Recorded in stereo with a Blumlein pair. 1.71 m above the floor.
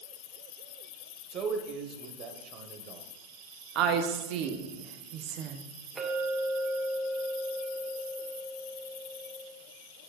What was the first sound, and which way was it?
A man speaking, 30° right.